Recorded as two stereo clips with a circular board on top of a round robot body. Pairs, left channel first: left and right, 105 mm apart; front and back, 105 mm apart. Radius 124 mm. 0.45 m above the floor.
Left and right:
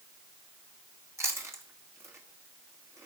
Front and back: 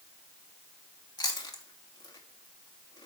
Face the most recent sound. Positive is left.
turn(degrees=-35)